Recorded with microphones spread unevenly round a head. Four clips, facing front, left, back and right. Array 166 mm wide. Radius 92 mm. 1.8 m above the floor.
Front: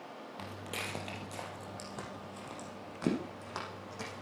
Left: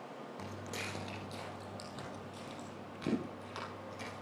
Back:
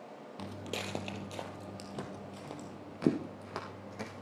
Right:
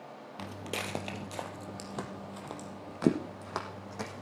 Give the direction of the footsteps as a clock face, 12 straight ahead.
3 o'clock.